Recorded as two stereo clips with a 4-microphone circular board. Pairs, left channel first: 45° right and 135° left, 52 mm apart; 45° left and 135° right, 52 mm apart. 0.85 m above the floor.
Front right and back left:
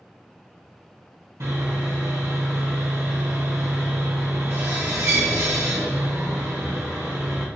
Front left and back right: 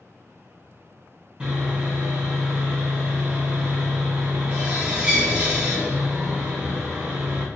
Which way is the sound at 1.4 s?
155° left.